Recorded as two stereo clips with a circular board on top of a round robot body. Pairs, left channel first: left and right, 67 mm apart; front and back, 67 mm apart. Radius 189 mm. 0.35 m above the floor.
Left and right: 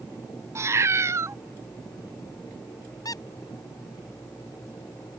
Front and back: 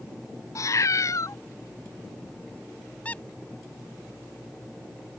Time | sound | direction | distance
0.6 | a cat meowing | 40° right | ?
3.0 | a squeak | 70° left | ?